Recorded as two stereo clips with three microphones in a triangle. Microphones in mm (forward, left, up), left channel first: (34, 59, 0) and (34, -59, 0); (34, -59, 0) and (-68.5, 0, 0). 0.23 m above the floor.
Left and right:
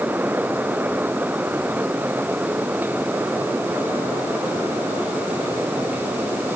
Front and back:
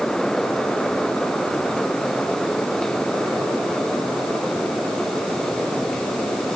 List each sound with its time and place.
Only background noise.